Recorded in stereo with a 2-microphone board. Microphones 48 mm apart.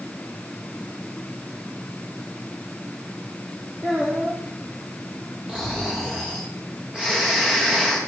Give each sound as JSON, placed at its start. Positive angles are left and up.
{"t": 3.8, "sound": "a child speaking", "side_deg": -20, "distance_m": 3.0}
{"t": 5.5, "sound": "snoring", "side_deg": -15, "distance_m": 6.0}